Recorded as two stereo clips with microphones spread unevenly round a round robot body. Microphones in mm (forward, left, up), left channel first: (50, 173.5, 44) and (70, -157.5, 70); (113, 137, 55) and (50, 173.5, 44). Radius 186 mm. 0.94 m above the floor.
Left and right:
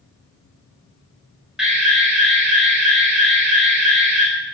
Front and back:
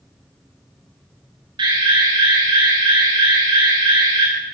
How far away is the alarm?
About 5 m.